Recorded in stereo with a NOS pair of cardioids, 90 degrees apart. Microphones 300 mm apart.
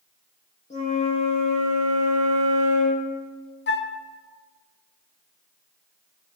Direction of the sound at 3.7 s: 35° left.